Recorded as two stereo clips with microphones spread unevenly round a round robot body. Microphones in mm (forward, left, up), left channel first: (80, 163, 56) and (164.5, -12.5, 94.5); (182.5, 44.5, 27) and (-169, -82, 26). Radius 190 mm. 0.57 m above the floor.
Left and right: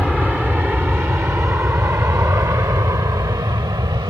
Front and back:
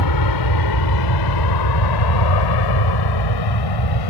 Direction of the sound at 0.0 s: 25° left.